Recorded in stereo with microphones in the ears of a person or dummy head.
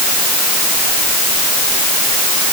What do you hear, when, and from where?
Only background noise.